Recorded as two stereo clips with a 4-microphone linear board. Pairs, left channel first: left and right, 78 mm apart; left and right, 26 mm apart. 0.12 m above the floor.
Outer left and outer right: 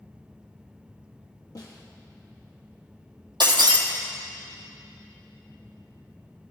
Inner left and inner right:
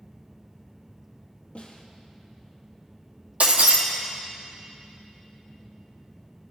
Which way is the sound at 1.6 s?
50° left (ahead or behind).